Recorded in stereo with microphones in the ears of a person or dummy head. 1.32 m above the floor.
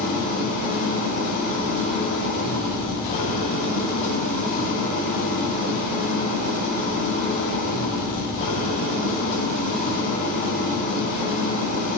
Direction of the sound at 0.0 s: 45° left (ahead or behind).